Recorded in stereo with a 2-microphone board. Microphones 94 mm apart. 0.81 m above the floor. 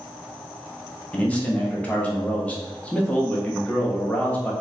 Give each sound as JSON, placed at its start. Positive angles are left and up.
{"t": 1.1, "sound": "a man speaking", "side_deg": 15, "distance_m": 0.9}